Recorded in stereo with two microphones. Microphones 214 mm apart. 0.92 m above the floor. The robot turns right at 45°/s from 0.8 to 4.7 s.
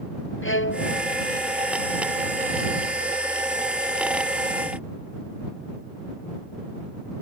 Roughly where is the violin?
Left.